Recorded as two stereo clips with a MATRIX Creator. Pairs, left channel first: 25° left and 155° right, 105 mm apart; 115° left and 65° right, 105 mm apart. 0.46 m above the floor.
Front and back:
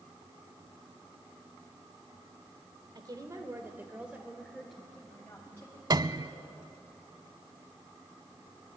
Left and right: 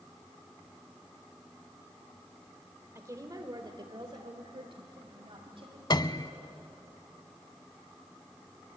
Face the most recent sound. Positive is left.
turn(degrees=155)